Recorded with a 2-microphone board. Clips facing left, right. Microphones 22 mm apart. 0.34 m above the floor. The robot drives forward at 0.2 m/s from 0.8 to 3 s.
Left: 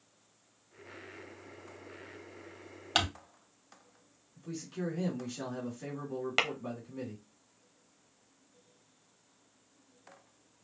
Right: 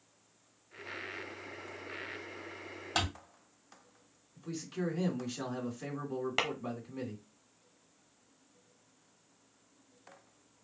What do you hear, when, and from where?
3.0 s crumpling: 60° left (ahead or behind), 2.0 m
4.3 s a man speaking: 10° right (ahead or behind), 3 m
6.4 s tapping: 30° left (ahead or behind), 0.8 m